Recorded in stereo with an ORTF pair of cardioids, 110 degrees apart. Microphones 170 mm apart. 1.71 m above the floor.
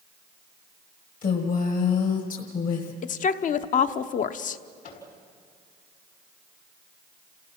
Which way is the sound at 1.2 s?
50° left.